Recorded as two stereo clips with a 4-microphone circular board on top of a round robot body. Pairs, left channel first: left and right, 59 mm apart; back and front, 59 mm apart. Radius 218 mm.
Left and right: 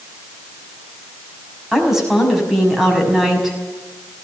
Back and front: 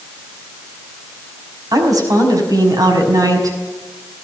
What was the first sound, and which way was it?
A woman speaking, 10° right.